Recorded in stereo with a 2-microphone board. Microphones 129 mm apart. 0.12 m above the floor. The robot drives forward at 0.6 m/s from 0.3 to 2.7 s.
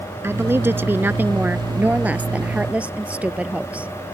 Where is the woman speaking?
20° right (ahead or behind); by 3.9 s 10° right (ahead or behind).